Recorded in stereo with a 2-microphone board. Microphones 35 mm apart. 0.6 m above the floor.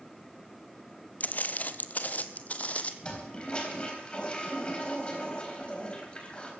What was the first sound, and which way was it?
Footsteps, 45° left (ahead or behind).